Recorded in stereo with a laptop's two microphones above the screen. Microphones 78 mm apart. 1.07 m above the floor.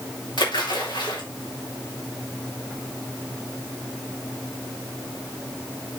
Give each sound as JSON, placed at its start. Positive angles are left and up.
{"t": 0.4, "sound": "a splash", "side_deg": 80, "distance_m": 3.5}